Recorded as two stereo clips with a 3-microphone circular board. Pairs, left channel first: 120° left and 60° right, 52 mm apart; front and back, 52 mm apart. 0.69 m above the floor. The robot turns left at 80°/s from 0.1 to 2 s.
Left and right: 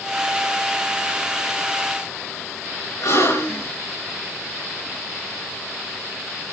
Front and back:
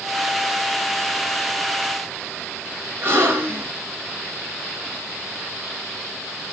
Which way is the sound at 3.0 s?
135° left.